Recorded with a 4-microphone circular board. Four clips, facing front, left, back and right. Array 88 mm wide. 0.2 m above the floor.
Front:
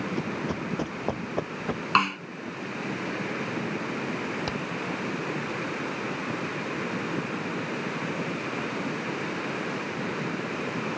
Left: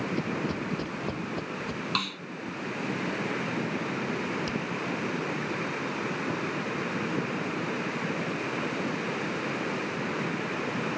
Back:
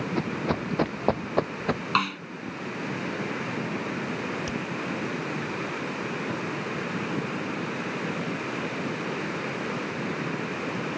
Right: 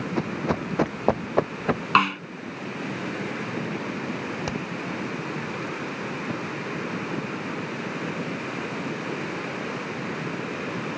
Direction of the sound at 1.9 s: 80° right.